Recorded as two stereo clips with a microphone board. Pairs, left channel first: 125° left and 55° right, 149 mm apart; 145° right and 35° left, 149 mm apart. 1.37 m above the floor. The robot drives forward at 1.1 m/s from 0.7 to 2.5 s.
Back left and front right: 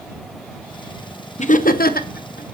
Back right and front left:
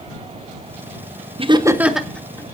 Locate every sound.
1.4 s laughter: 85° left, 0.9 m; by 2.5 s 140° left, 1.4 m